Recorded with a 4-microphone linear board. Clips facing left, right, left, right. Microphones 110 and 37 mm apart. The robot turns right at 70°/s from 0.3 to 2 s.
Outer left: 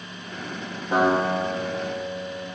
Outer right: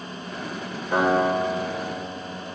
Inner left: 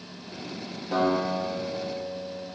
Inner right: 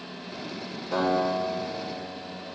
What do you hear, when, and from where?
0.9 s a guitar: 15° left, 2 m; by 2.5 s 90° left, 2 m